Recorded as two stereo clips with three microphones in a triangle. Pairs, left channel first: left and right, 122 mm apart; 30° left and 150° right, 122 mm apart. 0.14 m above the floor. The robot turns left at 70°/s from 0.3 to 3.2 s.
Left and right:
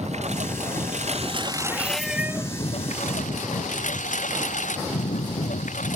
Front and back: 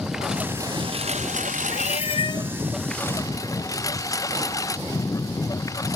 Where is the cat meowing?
20° left; by 2.5 s 35° right.